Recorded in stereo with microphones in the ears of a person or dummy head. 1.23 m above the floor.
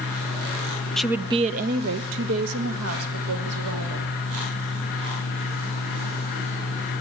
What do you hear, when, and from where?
1.0 s a woman speaking: centre (ahead or behind), 0.6 m; by 4.1 s 85° right, 2.5 m